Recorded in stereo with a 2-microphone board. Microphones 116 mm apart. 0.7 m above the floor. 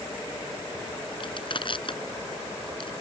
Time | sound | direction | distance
1.2 | crushing | 50° left (ahead or behind) | ?